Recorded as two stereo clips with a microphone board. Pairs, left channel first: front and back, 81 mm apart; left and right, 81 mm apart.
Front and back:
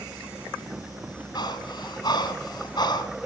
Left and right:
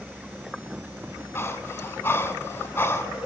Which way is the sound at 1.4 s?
30° left.